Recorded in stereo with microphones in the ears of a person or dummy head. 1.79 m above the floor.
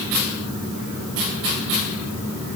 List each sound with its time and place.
Only background noise.